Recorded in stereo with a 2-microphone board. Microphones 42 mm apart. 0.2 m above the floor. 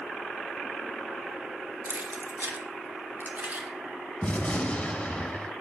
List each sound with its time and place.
1.9 s keys jangling: 45° right (ahead or behind), 1.5 m; by 3.7 s 35° right (ahead or behind), 2 m
4.2 s a gunshot: 25° left (ahead or behind), 1.2 m